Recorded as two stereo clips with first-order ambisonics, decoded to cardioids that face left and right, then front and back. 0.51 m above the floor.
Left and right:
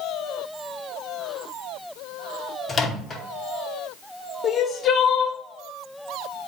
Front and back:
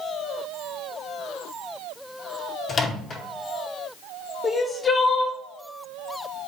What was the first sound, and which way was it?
A microwave, 45° left.